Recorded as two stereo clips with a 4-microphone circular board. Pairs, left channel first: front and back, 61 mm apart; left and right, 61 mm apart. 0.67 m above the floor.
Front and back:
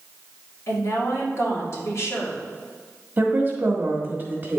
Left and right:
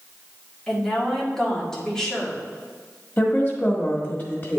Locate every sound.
0.7 s a woman speaking: 15° left, 1.8 m
3.2 s a woman speaking: 135° left, 1.4 m